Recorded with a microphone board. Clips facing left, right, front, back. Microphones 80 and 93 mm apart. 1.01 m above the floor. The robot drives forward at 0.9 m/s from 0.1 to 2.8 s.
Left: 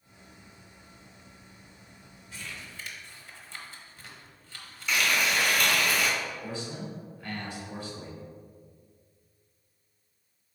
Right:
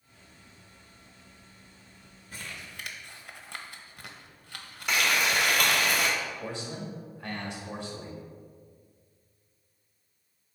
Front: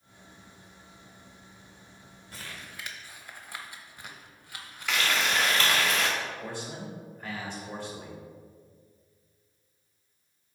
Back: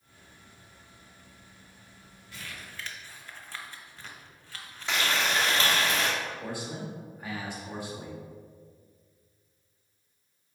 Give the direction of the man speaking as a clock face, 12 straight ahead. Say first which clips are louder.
Even, back 1 dB; 3 o'clock.